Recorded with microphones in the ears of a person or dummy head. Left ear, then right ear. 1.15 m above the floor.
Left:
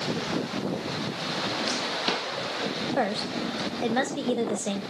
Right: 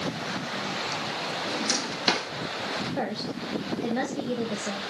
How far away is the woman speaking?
About 1.4 m.